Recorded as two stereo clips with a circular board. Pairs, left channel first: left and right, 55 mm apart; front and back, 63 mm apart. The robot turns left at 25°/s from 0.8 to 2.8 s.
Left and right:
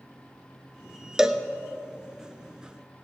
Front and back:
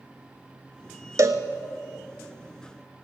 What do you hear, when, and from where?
1.2 s a cowbell: 165° right, 0.8 m; by 1.4 s 175° right, 0.8 m